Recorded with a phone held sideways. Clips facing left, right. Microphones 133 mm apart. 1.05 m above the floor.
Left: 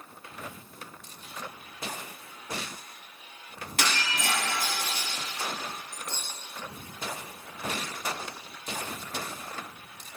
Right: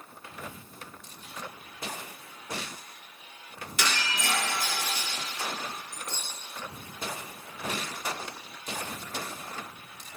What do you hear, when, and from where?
3.8 s breaking glass: 60° left (ahead or behind), 2 m